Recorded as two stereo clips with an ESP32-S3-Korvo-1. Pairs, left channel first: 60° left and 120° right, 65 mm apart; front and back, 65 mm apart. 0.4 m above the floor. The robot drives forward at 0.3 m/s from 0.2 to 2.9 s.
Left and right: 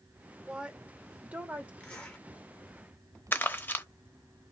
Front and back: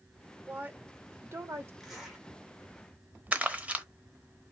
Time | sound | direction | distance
0.5 | a woman speaking | 175° right | 0.8 m
1.8 | a zipper | 95° left | 1.5 m
3.3 | crumpling | 115° left | 0.8 m